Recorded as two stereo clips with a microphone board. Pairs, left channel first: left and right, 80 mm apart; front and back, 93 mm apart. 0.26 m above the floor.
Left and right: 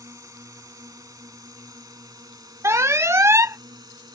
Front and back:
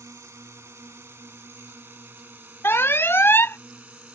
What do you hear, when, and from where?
0.0 s a drone: 130° right; by 4.2 s 105° right
2.6 s an alarm: 55° right